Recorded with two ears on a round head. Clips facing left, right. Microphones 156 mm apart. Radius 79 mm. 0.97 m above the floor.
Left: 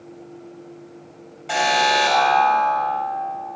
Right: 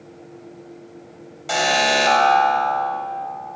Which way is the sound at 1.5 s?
50° right (ahead or behind).